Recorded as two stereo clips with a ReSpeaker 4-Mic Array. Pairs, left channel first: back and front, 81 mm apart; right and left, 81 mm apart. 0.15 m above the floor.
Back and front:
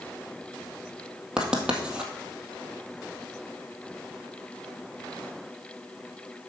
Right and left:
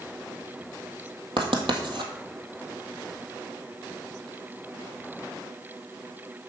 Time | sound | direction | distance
1.4 | writing | 80° left | 1.6 m